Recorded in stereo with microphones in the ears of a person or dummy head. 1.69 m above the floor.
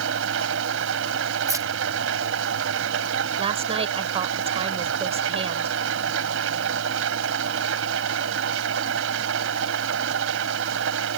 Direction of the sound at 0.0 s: 80° right.